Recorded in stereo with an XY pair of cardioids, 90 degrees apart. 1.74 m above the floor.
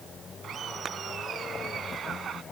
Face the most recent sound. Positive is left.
turn(degrees=-55)